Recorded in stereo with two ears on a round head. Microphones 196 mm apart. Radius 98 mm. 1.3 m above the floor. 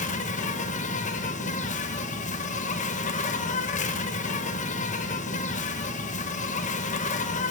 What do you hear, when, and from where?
0.0 s an insect: 35° left (ahead or behind), 1.0 m